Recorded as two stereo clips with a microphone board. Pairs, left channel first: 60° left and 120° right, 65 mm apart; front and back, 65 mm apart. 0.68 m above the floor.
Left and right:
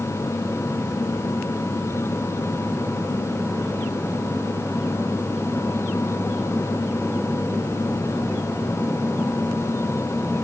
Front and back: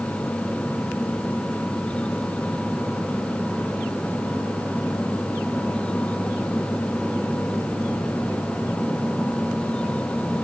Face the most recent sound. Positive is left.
No sound to turn to.